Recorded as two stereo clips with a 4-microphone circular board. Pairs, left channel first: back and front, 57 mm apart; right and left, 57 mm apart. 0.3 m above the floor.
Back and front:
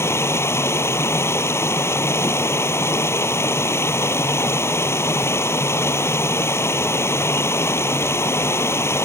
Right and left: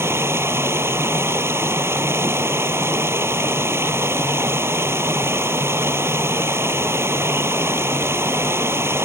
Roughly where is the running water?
Behind left.